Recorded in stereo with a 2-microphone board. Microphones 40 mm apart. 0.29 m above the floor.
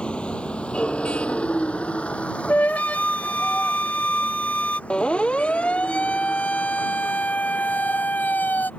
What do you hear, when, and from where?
0.0 s a vehicle: 25° left (ahead or behind); by 8.8 s 35° left (ahead or behind)
2.5 s a flute: 40° left (ahead or behind)
4.9 s a siren: 25° left (ahead or behind); by 8.7 s 45° left (ahead or behind)